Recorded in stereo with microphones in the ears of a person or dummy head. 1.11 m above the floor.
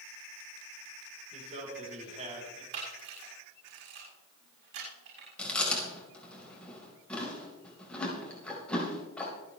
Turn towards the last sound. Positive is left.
turn(degrees=10)  # may be behind; listen again after turning